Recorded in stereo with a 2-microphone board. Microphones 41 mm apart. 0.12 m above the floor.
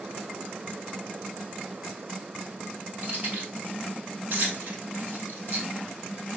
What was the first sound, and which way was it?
Keys jangling, 40° right (ahead or behind).